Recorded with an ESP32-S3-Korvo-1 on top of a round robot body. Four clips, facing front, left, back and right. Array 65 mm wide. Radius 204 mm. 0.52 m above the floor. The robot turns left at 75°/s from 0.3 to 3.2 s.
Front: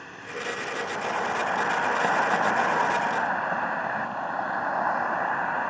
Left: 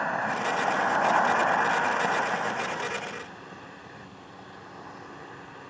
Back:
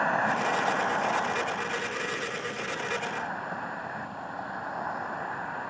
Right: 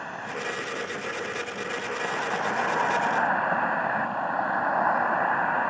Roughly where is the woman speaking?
No woman speaking in this recording.